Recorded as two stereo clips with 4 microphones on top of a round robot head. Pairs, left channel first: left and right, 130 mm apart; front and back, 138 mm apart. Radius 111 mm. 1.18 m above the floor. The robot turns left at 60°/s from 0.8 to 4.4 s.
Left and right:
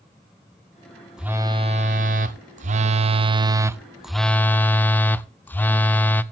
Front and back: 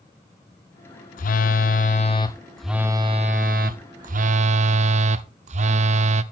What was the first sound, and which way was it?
A phone buzzing, 5° right.